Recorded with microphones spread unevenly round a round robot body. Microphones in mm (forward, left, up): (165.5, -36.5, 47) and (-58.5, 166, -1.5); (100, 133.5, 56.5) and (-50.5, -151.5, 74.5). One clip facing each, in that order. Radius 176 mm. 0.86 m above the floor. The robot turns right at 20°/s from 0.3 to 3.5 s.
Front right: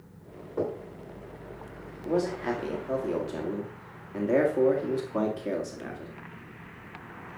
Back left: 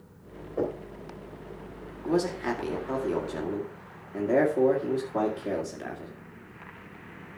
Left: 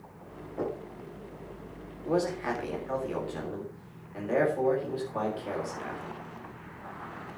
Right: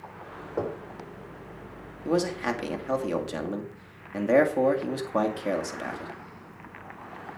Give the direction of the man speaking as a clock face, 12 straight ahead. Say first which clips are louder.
Back left 1 dB, right 2 dB; 5 o'clock.